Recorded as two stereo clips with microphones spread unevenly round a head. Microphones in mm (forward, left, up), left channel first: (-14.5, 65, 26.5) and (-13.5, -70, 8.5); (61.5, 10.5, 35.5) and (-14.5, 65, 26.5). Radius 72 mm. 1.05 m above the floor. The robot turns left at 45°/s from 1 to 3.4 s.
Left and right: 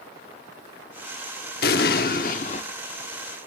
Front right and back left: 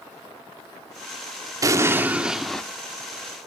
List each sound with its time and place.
1.6 s an explosion: 90° left, 1.1 m; by 2.6 s 45° left, 1.1 m